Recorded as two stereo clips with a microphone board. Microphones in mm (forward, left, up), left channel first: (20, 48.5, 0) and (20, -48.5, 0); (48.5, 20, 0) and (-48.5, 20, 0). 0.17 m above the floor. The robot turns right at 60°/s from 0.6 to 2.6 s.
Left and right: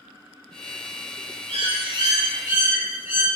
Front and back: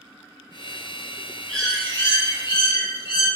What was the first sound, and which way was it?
A bird, 95° right.